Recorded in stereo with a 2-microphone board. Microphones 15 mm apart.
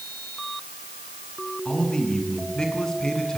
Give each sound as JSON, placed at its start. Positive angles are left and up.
{"t": 1.6, "sound": "a man speaking", "side_deg": 45, "distance_m": 7.5}